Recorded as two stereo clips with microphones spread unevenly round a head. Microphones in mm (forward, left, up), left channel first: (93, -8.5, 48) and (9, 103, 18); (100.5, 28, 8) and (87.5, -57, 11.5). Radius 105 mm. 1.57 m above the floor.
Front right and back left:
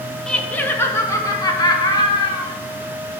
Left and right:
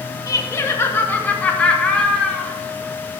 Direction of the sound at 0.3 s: 30° left.